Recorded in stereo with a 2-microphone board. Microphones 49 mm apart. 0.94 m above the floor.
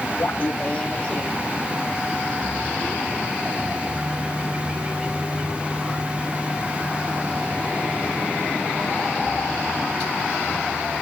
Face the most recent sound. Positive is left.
turn(degrees=0)  # may be behind; listen again after turning